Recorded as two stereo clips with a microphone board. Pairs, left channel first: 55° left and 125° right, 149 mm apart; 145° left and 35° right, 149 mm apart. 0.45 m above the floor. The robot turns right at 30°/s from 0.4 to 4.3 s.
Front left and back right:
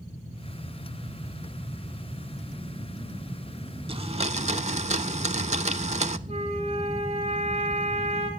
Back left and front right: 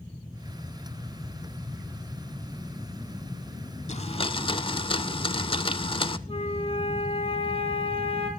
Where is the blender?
175° right, 0.6 m; by 6.2 s 160° right, 0.6 m.